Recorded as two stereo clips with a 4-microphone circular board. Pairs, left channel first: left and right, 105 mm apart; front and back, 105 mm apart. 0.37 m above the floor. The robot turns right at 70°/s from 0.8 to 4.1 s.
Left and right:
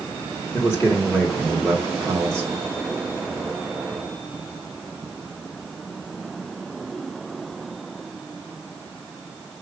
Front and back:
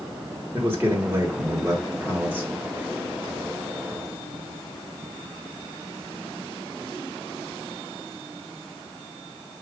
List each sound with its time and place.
0.5 s a man speaking: 130° left, 1.2 m; by 2.5 s 110° right, 1.2 m